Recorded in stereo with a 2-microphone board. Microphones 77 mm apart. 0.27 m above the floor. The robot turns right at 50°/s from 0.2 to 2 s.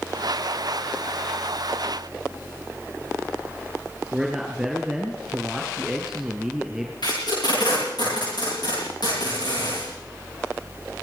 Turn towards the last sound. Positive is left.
turn(degrees=65)  # may be behind; listen again after turning